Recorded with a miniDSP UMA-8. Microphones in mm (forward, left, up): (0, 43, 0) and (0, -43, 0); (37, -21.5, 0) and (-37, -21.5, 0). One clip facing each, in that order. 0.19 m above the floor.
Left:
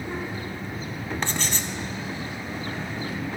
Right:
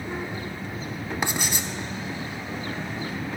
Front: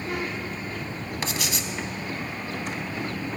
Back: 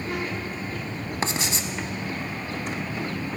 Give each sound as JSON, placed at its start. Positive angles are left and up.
{"t": 1.2, "sound": "writing", "azimuth_deg": -155, "distance_m": 0.6}